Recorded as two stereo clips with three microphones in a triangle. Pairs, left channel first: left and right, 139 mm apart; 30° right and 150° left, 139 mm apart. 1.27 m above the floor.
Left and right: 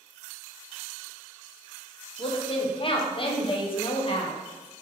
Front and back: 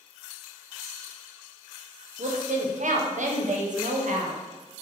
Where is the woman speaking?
135° left, 0.6 m.